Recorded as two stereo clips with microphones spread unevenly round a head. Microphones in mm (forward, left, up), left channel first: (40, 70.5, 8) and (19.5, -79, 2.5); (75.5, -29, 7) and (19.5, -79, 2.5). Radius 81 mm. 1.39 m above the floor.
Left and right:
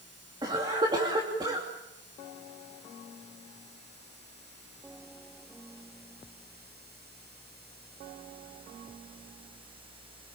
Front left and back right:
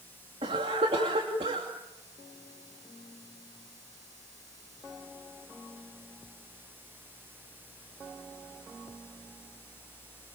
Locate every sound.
0.4 s a cough: 165° right, 2.5 m